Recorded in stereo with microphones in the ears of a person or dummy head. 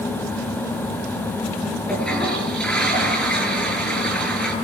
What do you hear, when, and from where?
1.9 s a toilet flushing: 5° left (ahead or behind), 8.5 m